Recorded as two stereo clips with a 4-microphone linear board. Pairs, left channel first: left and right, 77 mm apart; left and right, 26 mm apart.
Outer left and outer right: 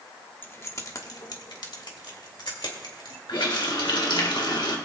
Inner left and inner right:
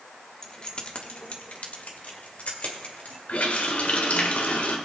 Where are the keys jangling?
25° left (ahead or behind), 1.0 m; by 3.2 s 75° left (ahead or behind), 2.5 m.